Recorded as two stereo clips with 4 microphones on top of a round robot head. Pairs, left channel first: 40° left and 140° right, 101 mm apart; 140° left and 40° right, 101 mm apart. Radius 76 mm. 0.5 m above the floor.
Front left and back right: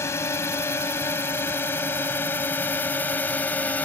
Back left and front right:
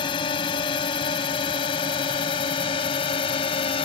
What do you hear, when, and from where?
0.0 s a drone: 105° left; by 3.9 s 115° left